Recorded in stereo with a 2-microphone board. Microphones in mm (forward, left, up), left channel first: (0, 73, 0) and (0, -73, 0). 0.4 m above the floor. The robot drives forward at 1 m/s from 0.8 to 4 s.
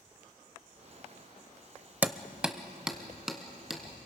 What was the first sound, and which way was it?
Hammering, 10° right (ahead or behind).